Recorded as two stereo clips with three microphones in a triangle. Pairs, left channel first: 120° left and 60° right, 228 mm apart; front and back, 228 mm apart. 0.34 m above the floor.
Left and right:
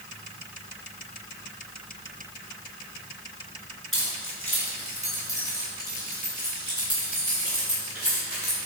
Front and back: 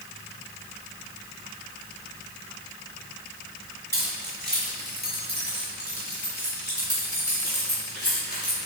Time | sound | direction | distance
3.9 | keys jangling | 140° left | 3.5 m